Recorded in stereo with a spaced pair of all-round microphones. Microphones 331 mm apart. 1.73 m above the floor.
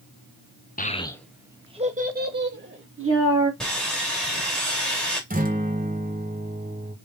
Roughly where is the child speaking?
Left.